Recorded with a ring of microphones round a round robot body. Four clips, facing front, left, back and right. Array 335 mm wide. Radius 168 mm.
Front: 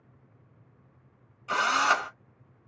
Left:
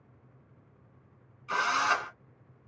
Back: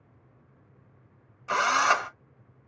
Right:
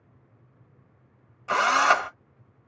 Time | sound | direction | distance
1.5 | a drill | 105° right | 0.8 m